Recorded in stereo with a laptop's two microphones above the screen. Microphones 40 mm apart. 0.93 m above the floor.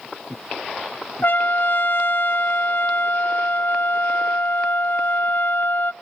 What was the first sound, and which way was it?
A trumpet, 55° left (ahead or behind).